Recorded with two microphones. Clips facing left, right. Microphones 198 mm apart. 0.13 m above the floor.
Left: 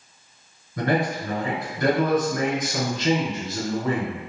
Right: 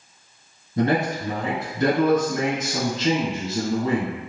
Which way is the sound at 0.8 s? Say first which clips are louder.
Right 2 dB; 25° right (ahead or behind).